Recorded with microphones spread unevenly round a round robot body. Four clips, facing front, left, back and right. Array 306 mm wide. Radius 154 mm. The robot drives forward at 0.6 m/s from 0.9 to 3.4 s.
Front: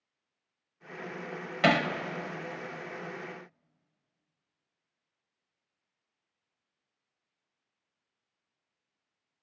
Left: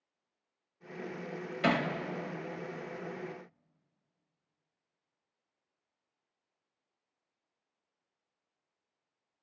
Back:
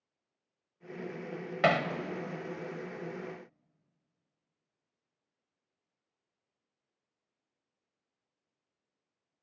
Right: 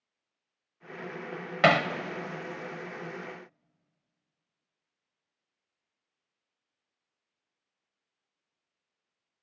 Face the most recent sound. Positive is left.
turn(degrees=-110)